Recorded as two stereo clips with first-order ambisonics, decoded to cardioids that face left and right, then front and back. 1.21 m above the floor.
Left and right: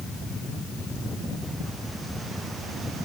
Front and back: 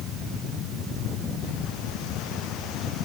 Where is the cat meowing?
No cat meowing in this recording.